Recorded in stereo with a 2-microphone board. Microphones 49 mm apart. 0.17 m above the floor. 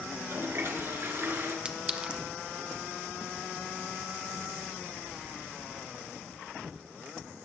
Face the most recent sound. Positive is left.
turn(degrees=-20)  # may be behind; listen again after turning